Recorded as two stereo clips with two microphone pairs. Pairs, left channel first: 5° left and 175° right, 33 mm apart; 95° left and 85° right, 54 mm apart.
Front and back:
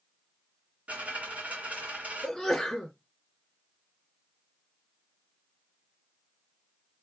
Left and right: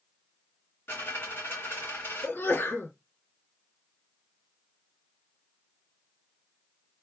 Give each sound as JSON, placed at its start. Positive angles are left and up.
{"t": 0.9, "sound": "a dropped coin", "azimuth_deg": 140, "distance_m": 2.5}
{"t": 2.2, "sound": "a sneeze", "azimuth_deg": 85, "distance_m": 1.6}